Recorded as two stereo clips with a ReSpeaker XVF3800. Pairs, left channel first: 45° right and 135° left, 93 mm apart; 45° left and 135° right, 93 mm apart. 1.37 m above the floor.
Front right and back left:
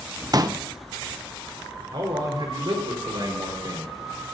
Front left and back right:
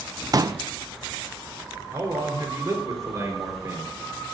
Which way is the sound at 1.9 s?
170° left.